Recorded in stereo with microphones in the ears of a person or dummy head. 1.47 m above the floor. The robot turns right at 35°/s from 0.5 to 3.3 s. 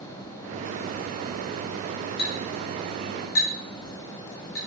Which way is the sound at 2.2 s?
80° left.